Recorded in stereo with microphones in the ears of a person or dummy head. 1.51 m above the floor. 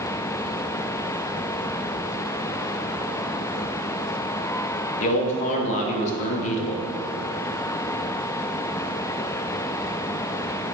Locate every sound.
5.0 s a man speaking: 40° left (ahead or behind), 1.4 m